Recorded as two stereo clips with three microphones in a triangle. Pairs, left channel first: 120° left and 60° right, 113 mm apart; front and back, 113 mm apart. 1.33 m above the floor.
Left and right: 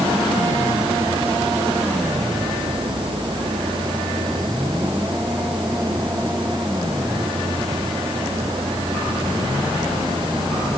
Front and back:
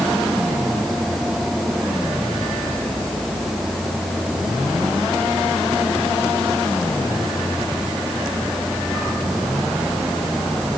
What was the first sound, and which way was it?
Only background noise.